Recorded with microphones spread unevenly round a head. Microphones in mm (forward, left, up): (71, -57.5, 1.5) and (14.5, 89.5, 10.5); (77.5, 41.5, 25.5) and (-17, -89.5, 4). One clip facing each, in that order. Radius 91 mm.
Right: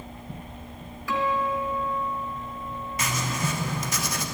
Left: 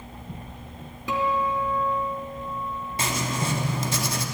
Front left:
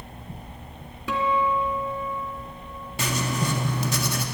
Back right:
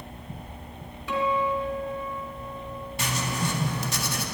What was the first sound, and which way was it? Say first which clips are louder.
A guitar: left 1 dB, front left 1 dB; 45° left.